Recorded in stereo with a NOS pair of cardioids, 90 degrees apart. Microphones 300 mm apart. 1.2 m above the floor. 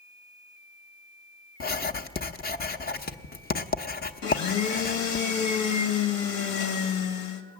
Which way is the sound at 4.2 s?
60° left.